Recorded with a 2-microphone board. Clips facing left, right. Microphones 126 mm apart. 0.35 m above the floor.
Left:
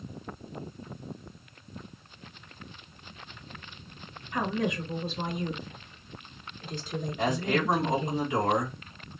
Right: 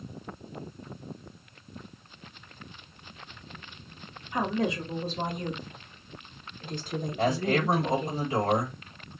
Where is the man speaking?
35° right (ahead or behind), 1.3 m.